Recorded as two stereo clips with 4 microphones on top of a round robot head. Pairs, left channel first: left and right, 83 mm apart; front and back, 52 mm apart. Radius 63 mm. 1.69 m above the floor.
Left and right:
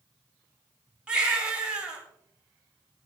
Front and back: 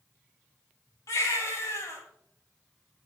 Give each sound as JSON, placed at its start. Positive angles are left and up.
{"t": 1.1, "sound": "a baby crying", "azimuth_deg": -10, "distance_m": 7.5}